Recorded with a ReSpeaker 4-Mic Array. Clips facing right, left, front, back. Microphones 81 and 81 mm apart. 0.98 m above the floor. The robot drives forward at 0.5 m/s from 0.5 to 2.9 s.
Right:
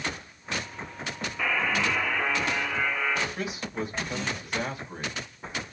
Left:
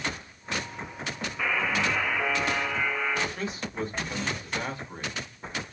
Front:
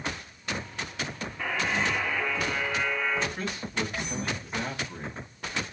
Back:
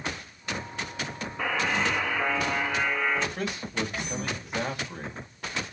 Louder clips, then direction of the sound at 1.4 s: Even, back 2 dB; 175° left.